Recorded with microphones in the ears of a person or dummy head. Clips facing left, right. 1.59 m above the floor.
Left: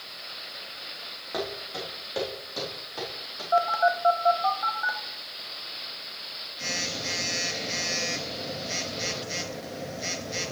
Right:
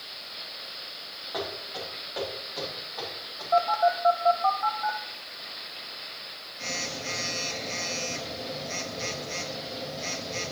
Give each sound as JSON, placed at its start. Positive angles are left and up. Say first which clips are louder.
{"t": 1.3, "sound": "footsteps", "louder": "left 2 dB", "side_deg": 40, "distance_m": 3.5}
{"t": 3.5, "sound": "a phone buzzing", "louder": "right 1 dB", "side_deg": 5, "distance_m": 0.8}